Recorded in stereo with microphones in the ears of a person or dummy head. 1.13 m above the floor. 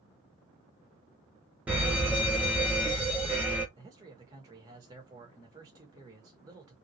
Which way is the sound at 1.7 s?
10° right (ahead or behind).